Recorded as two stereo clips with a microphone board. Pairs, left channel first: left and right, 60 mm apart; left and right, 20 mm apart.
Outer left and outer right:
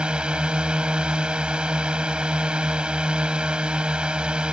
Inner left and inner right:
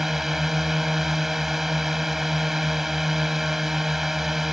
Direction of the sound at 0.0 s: 15° right (ahead or behind).